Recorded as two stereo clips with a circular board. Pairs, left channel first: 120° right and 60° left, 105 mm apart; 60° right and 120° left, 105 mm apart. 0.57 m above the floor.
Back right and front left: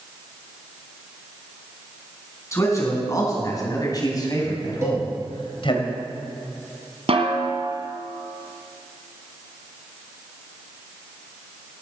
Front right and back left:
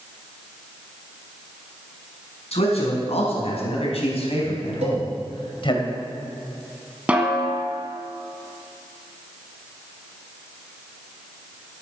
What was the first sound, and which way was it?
A man speaking, 60° right.